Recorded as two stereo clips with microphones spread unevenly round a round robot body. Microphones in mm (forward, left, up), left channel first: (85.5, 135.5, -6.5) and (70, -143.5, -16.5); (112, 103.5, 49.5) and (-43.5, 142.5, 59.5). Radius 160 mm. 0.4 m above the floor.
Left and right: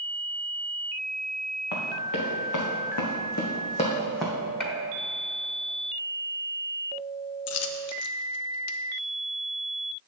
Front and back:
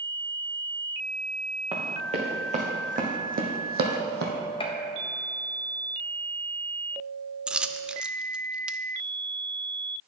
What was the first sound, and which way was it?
Running footsteps, 115° left.